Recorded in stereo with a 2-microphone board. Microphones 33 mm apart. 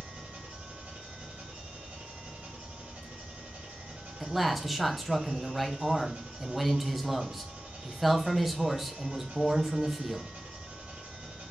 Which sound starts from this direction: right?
An engine running, at 0.0 s.